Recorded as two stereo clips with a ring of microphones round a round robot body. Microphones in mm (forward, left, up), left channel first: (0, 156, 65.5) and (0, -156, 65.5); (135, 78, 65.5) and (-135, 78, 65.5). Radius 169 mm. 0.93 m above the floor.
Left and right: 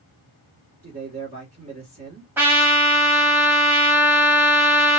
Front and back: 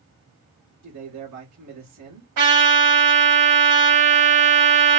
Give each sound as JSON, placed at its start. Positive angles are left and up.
{"t": 0.8, "sound": "a man speaking", "azimuth_deg": -155, "distance_m": 2.0}
{"t": 2.4, "sound": "a trumpet", "azimuth_deg": -175, "distance_m": 2.0}